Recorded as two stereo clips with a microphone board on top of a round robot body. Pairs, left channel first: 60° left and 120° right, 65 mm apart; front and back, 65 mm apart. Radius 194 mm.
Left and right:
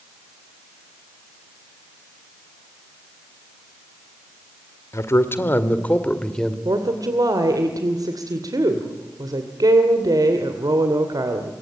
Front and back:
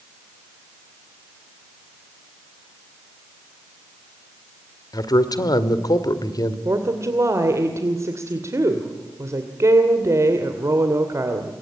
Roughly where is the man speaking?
Ahead.